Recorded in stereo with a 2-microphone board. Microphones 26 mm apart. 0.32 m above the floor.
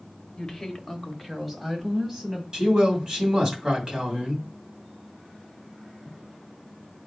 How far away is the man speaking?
About 2 m.